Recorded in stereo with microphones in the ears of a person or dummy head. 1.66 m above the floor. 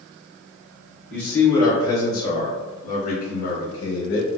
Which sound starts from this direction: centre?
A man speaking, at 1.1 s.